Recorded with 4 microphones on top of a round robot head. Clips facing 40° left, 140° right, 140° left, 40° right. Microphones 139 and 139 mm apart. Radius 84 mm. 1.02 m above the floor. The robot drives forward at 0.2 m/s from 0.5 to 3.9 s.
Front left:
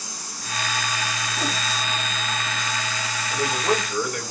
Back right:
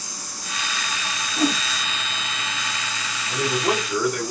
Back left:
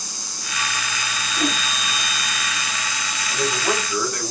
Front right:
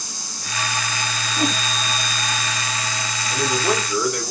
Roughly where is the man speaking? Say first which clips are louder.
Back right 1 dB, front right 2 dB; behind right.